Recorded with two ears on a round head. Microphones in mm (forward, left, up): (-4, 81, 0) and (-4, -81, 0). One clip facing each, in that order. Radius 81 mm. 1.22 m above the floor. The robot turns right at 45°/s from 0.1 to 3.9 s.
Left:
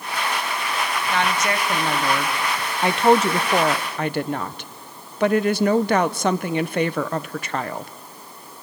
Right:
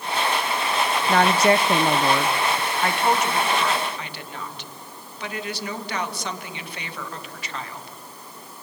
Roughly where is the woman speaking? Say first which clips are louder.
Right 6 dB; ahead right.